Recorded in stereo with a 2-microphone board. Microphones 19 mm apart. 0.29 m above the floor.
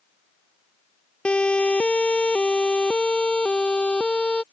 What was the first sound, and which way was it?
A siren, 75° left (ahead or behind).